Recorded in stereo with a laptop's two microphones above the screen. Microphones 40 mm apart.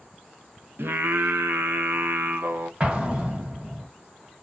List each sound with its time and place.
0.8 s singing: 65° right (ahead or behind), 0.5 m
2.8 s an explosion: 25° right (ahead or behind), 0.6 m